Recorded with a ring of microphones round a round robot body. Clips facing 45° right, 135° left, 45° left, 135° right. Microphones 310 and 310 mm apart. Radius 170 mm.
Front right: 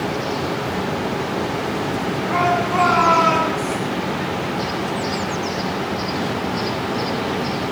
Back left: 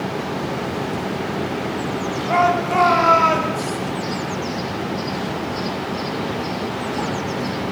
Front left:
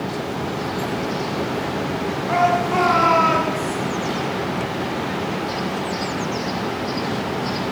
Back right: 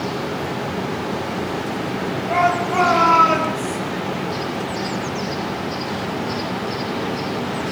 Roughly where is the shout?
Behind left.